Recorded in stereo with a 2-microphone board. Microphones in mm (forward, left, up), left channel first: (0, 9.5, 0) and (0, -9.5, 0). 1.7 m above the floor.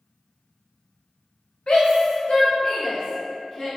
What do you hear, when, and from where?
1.7 s a shout: 55° left (ahead or behind), 0.5 m; by 3.7 s 20° left (ahead or behind), 1.3 m